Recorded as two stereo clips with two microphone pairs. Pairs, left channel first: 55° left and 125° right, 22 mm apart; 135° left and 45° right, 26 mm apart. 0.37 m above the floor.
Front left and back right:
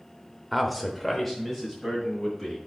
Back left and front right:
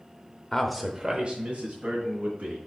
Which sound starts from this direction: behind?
A man speaking, at 0.5 s.